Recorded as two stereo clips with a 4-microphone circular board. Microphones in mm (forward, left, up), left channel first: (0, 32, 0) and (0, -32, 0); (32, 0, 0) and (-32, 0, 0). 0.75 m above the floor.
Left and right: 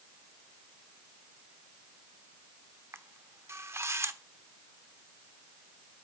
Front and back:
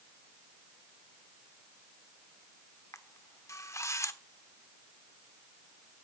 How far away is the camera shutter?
About 0.9 m.